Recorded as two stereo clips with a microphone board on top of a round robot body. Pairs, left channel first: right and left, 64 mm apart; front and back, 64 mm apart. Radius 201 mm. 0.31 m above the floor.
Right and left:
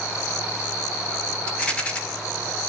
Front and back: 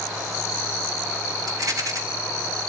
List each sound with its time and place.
1.5 s a rattle: 160° right, 3.5 m